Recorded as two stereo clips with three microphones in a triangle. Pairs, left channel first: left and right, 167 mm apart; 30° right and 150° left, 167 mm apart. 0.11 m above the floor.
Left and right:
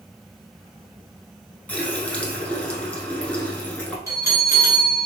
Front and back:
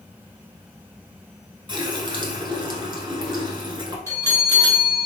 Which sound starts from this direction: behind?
A running tap, at 1.7 s.